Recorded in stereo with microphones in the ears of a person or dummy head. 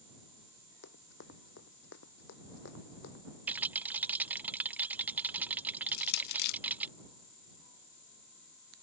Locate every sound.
0.8 s running footsteps: 70° left (ahead or behind)
3.5 s a rattle: 10° right (ahead or behind)
5.9 s crushing: 60° left (ahead or behind)